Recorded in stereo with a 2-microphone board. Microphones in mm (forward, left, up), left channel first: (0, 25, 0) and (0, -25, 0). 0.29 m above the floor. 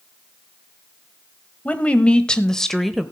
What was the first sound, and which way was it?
A woman speaking, 30° left (ahead or behind).